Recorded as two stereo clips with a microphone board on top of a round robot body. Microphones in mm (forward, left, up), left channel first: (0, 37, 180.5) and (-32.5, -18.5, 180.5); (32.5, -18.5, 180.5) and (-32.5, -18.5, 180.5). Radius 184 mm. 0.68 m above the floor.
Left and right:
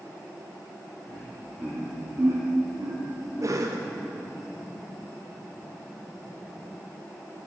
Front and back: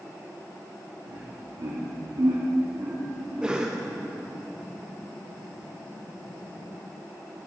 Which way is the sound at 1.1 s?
165° left.